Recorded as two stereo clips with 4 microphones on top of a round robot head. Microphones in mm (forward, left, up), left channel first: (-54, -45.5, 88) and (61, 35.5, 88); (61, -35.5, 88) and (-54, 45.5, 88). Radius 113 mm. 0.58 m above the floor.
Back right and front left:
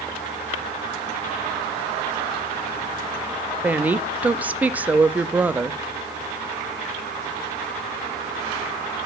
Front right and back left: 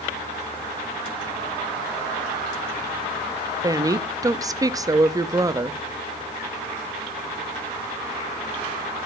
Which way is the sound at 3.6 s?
105° left.